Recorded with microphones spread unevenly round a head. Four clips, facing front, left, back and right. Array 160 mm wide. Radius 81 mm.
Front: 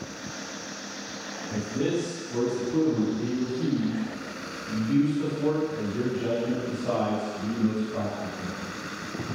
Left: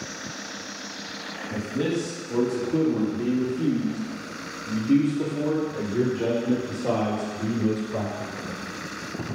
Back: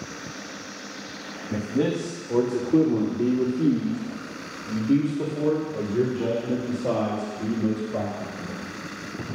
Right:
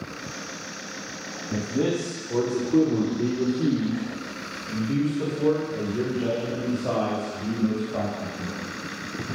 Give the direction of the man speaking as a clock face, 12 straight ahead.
5 o'clock.